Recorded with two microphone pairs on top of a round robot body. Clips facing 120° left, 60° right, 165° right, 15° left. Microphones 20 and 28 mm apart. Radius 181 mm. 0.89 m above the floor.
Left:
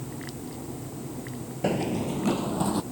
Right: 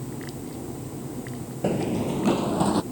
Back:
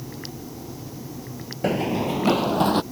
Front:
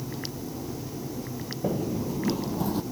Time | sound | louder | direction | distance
1.6 | running footsteps | right 2 dB, back 6 dB | 155° right | ?